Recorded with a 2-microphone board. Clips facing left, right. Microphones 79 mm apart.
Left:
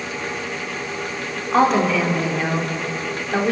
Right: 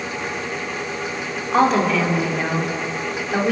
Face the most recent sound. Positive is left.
turn(degrees=5)  # may be behind; listen again after turning